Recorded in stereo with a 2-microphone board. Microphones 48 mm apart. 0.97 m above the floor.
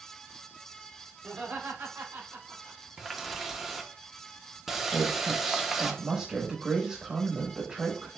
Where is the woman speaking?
20° right (ahead or behind), 1.0 m.